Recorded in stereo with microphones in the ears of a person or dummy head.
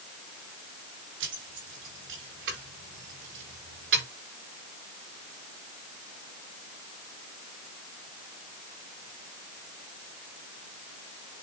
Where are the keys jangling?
65° right (ahead or behind), 6 m; by 4.0 s 60° right (ahead or behind), 4.5 m.